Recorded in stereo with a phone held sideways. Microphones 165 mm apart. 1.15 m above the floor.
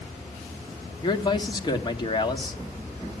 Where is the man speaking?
25° left (ahead or behind), 1.9 m.